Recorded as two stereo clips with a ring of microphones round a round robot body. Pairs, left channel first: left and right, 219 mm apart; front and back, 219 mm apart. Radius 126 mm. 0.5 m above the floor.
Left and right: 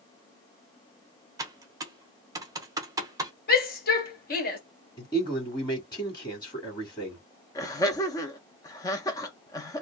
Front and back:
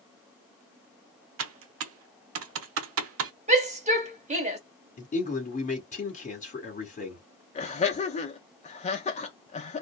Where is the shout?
130° left, 1.8 m.